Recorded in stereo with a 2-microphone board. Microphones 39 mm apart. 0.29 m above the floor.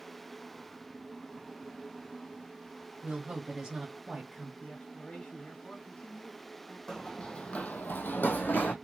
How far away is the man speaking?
About 1.7 m.